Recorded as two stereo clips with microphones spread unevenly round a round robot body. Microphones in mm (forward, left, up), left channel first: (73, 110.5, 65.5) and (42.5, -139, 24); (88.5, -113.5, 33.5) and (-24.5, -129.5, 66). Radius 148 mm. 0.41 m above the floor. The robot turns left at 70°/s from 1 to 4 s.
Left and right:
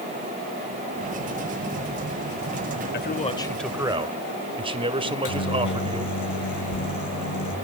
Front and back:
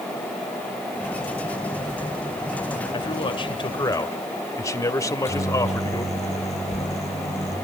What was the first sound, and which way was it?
A man speaking, 35° left.